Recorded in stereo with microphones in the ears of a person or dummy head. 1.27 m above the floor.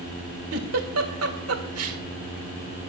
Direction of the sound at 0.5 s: 75° right (ahead or behind).